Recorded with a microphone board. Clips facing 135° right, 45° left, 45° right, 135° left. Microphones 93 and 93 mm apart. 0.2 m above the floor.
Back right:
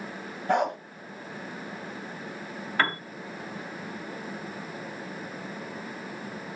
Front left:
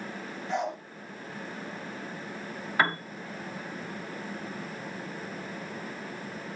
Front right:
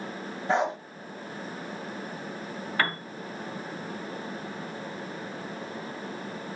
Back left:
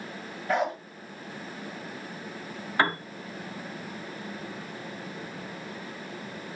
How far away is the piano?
About 1.2 m.